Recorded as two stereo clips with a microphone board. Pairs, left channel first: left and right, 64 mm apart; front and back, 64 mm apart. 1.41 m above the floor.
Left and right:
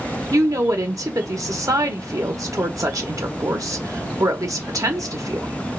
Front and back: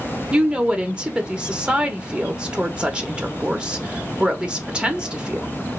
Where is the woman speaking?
110° right, 0.8 m.